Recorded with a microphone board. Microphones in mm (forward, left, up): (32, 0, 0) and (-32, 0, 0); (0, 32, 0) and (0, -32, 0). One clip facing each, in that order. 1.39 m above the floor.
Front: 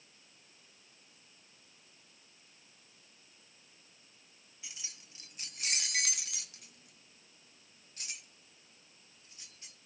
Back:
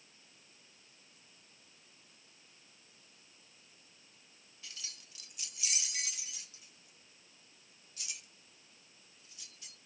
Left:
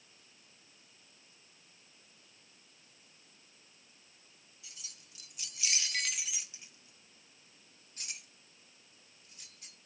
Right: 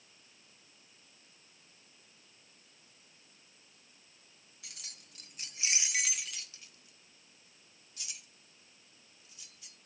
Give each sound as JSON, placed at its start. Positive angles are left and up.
{"t": 4.6, "sound": "keys jangling", "azimuth_deg": -75, "distance_m": 0.8}